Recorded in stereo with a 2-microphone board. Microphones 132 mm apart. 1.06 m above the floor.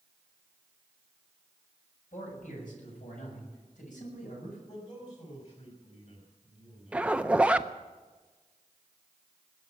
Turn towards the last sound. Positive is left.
turn(degrees=-10)  # may be behind; listen again after turning